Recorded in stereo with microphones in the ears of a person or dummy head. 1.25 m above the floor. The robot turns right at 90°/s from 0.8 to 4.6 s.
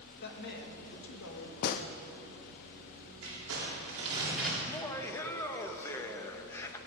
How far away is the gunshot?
About 0.5 m.